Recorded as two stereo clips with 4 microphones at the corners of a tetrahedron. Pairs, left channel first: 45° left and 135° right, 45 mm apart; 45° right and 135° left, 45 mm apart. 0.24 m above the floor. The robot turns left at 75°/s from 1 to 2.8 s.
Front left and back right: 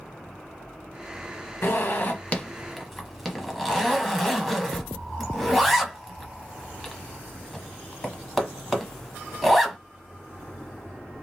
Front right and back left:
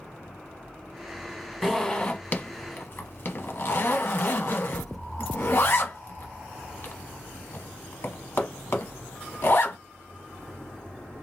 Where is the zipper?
45° left, 0.6 m; by 9.8 s 45° right, 0.6 m.